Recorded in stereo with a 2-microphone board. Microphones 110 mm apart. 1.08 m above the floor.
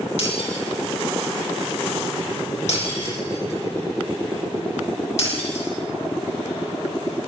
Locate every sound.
0.2 s breaking glass: 80° left, 9 m